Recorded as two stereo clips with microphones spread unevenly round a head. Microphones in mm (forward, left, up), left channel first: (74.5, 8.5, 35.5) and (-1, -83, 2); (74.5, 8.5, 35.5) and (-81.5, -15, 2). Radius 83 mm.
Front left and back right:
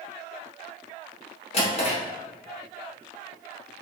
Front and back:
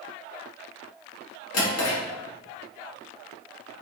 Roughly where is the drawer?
Ahead.